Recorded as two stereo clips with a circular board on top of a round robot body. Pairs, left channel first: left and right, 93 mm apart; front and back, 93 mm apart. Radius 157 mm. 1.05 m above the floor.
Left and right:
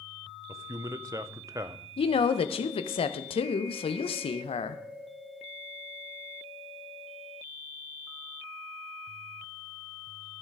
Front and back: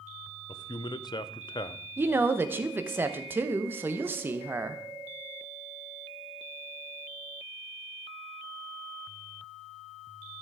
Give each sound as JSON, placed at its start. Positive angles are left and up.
{"t": 0.5, "sound": "a man speaking", "azimuth_deg": -35, "distance_m": 0.7}
{"t": 2.0, "sound": "a woman speaking", "azimuth_deg": 110, "distance_m": 0.7}